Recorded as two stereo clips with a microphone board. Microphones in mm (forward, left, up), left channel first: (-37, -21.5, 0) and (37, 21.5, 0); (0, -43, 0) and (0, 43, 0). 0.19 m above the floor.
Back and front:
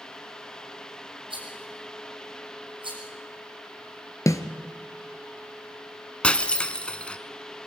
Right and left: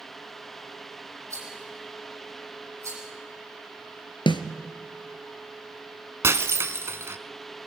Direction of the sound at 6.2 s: 135° left.